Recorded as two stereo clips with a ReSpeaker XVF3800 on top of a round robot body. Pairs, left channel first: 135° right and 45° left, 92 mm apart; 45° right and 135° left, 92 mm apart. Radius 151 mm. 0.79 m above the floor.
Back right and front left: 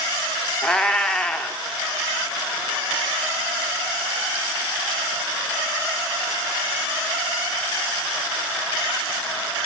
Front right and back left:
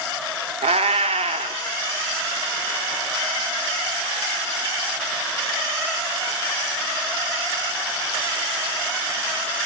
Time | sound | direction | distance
0.6 | a cat meowing | 140° left | 0.7 m